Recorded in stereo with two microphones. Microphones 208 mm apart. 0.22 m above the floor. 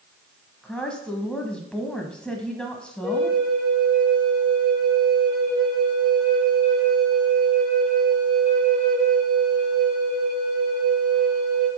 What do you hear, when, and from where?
0.6 s a woman speaking: 5° left (ahead or behind), 1.2 m
3.0 s a flute: centre (ahead or behind), 3.5 m